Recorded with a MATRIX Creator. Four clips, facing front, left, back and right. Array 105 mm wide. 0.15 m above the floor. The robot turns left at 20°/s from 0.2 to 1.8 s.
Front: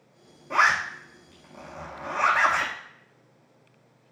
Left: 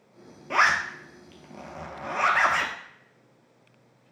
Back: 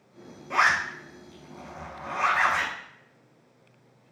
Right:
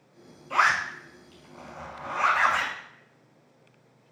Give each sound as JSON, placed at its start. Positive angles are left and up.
{"t": 0.5, "sound": "a zipper", "azimuth_deg": 100, "distance_m": 0.7}